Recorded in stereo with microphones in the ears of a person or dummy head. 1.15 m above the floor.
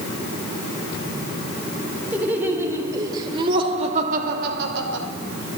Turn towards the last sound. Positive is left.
turn(degrees=-60)  # may be behind; listen again after turning